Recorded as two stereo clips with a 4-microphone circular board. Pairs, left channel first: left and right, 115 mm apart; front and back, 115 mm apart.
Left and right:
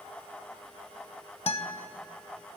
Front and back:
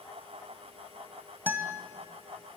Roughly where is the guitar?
Left.